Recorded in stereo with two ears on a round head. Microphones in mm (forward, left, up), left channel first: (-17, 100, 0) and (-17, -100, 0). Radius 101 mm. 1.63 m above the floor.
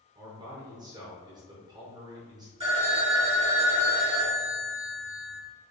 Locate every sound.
0.1 s a man speaking: 20° right (ahead or behind), 0.7 m
2.6 s a phone ringing: 25° right (ahead or behind), 1.7 m